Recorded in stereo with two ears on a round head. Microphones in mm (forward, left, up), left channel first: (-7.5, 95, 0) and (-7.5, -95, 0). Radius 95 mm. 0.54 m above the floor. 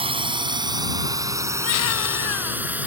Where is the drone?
25° right (ahead or behind); by 2.9 s 10° right (ahead or behind).